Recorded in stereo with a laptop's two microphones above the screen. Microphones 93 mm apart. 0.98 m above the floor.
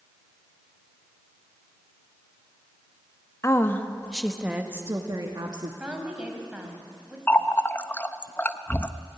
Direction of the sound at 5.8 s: 10° right (ahead or behind).